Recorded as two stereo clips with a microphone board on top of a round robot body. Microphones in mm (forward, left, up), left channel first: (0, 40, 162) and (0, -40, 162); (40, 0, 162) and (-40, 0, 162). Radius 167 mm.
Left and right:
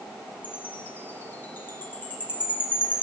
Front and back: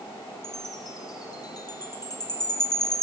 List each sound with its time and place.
0.4 s a chime: 25° left, 1.0 m